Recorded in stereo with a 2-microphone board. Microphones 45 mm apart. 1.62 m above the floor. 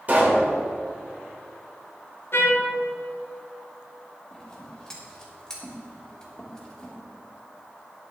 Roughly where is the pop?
Right.